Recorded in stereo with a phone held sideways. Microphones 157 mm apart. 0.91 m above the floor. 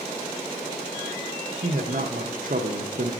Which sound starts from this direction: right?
A man speaking, at 1.6 s.